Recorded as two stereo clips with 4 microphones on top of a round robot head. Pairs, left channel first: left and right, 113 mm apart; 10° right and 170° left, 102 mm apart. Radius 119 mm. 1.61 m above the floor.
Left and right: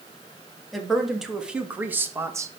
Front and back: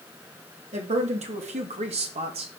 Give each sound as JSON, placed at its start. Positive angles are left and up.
{"t": 0.7, "sound": "a woman speaking", "azimuth_deg": 180, "distance_m": 3.5}